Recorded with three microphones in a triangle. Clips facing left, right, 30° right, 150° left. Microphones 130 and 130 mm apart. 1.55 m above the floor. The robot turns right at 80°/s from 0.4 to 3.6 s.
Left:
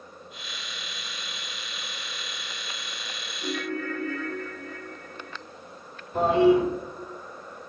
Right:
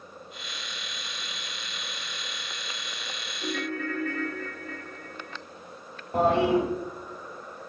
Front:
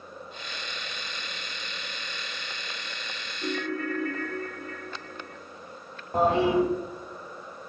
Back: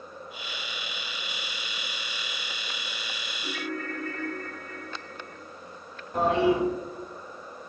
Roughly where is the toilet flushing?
Right.